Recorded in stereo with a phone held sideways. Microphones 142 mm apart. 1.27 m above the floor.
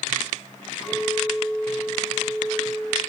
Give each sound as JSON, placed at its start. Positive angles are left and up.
{"t": 0.8, "sound": "a clink", "side_deg": 0, "distance_m": 7.0}